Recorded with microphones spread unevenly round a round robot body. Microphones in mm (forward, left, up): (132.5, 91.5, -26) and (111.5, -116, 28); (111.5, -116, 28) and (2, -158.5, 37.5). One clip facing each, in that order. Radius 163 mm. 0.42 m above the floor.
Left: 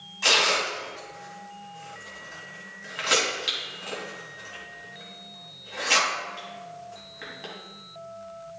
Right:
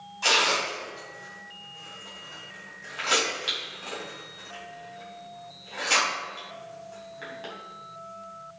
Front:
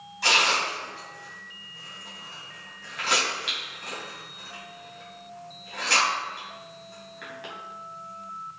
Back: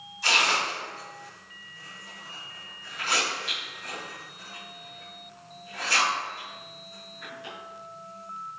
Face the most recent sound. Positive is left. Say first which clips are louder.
# left 1 dB, front 1 dB
turn(degrees=20)